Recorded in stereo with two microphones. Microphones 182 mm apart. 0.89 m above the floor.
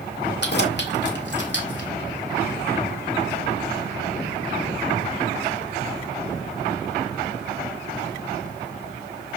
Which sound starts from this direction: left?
Keys jangling, at 0.4 s.